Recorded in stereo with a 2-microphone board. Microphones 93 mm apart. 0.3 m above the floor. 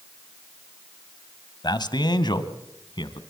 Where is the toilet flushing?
No toilet flushing in this recording.